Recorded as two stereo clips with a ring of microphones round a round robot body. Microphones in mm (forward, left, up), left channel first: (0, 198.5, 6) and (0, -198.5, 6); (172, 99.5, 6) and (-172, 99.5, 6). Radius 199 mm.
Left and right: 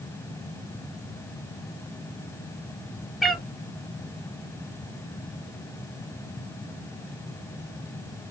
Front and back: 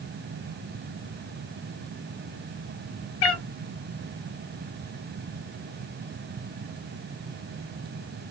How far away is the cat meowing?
About 1.2 m.